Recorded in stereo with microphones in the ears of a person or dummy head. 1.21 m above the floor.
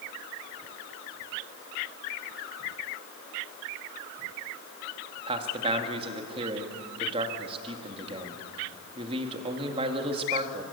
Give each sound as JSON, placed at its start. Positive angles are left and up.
{"t": 5.3, "sound": "a man speaking", "side_deg": -30, "distance_m": 1.8}